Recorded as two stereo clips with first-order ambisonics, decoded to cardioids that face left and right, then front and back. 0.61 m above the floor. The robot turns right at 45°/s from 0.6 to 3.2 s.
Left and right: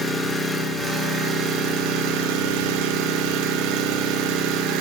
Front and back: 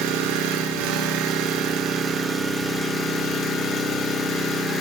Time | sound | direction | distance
0.0 | an engine running | 175° left | 0.9 m